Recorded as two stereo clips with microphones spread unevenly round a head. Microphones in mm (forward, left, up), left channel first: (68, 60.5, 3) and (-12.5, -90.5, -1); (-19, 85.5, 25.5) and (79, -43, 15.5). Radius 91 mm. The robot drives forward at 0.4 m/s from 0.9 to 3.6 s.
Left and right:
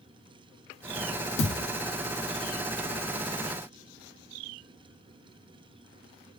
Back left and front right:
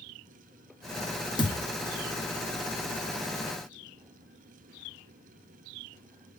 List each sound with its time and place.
1.4 s a thud: 70° left, 1.4 m; by 1.6 s 75° left, 1.4 m